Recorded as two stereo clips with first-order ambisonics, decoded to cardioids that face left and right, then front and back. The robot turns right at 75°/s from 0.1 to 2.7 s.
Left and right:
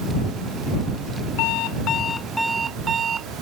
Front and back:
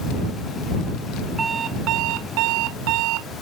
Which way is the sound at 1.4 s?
105° left.